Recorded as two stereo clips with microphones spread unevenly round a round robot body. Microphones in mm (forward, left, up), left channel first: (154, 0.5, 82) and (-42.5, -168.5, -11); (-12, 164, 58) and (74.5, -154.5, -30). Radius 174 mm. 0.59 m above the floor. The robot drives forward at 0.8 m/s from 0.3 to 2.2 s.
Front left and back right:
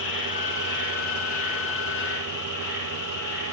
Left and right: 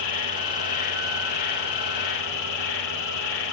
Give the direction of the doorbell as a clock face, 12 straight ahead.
I don't hear a doorbell.